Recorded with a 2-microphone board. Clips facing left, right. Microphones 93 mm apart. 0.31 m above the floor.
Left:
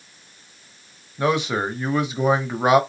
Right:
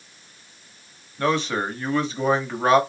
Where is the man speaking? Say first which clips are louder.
Left 1 dB; 10° left (ahead or behind), 1.2 m.